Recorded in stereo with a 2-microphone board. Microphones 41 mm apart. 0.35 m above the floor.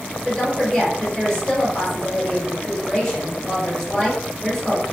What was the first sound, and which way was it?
A woman speaking, 15° left (ahead or behind).